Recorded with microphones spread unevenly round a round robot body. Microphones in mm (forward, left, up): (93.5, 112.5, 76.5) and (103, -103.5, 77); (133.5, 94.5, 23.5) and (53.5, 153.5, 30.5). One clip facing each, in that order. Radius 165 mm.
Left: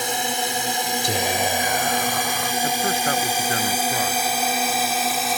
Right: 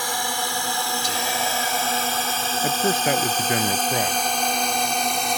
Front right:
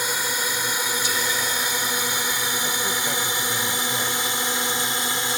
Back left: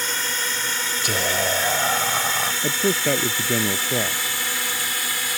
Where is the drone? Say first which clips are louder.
Left 3 dB, front right 1 dB; 35° left; by 5.4 s 10° left.